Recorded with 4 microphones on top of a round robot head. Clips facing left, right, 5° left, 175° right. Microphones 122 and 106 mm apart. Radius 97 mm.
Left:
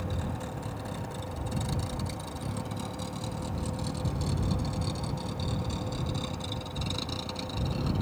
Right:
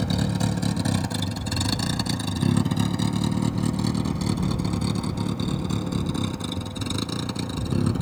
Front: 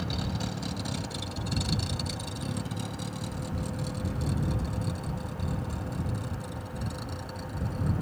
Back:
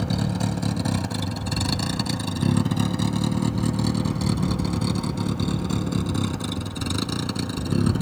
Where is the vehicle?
115° right; by 8.0 s 145° right.